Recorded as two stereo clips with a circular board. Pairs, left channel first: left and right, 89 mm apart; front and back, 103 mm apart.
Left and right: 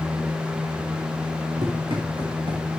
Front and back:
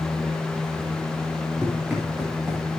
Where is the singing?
I don't hear singing.